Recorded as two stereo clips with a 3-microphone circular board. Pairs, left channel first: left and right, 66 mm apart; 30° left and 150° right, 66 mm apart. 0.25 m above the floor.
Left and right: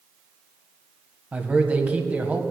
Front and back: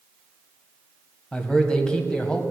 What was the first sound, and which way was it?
A man speaking, 40° right.